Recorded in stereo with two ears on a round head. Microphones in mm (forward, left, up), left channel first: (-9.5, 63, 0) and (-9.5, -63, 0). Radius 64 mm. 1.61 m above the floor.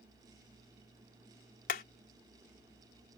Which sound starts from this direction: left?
Hammering, at 1.7 s.